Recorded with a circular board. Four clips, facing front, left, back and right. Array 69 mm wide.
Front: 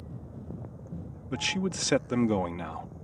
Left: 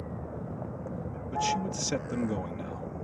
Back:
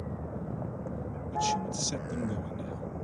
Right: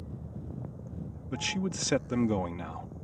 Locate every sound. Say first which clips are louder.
0.0 s a vehicle: left 6 dB, back 7 dB; 130° left
1.3 s a man speaking: left 4 dB, back 1 dB; 20° right